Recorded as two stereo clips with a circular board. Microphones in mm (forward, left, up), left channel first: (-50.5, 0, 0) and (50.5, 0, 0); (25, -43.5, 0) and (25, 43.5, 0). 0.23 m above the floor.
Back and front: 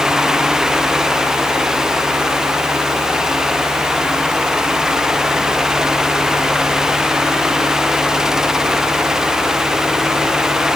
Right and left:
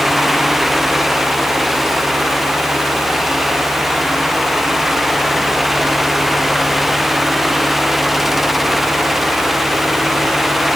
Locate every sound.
Only background noise.